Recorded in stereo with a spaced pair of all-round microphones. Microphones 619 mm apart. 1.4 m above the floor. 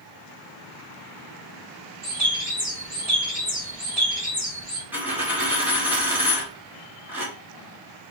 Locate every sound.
2.0 s a bird: 75° right (ahead or behind), 2.5 m
4.9 s a dropped coin: 5° right (ahead or behind), 1.8 m